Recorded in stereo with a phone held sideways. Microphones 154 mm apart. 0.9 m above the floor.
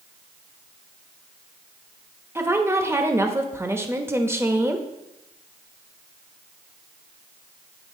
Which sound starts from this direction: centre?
A woman speaking, at 2.4 s.